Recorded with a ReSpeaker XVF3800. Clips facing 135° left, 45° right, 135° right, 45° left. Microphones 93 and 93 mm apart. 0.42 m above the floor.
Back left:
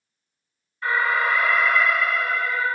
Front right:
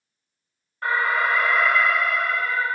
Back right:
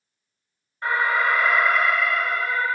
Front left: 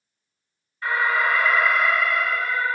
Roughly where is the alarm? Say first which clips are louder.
Even, even; right.